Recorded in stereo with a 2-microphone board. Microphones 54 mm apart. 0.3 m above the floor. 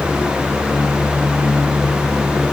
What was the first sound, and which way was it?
Only background noise.